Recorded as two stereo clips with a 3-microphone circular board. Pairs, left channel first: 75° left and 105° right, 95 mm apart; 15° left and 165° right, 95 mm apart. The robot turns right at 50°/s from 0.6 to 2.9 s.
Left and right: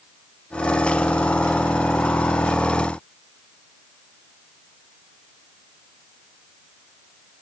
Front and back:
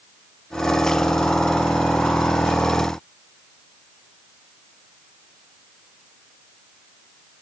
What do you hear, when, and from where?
Only background noise.